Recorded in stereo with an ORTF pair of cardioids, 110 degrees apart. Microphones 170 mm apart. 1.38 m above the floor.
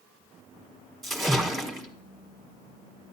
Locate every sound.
1.0 s a splash: straight ahead, 1.2 m